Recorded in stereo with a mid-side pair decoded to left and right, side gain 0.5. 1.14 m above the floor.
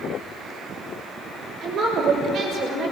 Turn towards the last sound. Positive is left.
turn(degrees=-60)